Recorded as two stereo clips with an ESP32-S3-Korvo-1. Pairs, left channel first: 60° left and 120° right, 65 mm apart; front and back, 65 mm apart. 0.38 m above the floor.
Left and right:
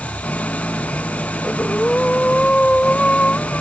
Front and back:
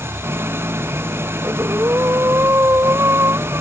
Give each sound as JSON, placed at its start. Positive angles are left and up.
{"t": 0.0, "sound": "an engine running", "azimuth_deg": 130}
{"t": 1.4, "sound": "breathing", "azimuth_deg": 135}